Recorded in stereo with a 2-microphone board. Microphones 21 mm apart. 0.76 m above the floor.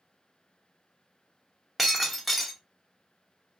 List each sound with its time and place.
1.8 s breaking glass: 5° right (ahead or behind), 0.7 m